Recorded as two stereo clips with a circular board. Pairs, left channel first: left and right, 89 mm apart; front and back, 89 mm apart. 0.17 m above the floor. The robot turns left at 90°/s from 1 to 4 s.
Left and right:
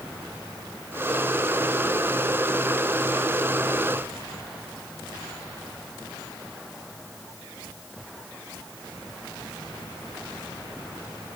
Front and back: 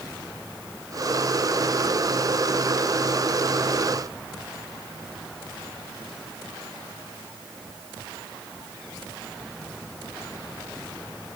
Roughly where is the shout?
I don't hear a shout.